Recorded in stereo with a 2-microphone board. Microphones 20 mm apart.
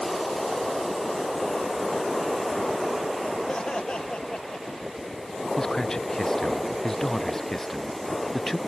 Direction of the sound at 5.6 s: 25° left (ahead or behind).